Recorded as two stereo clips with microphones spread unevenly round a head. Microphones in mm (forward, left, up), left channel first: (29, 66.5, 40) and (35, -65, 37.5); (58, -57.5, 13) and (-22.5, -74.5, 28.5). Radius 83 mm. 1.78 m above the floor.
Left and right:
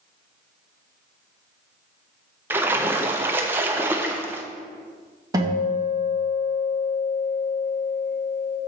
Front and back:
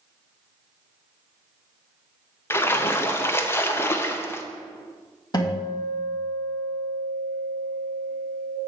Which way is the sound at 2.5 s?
35° right.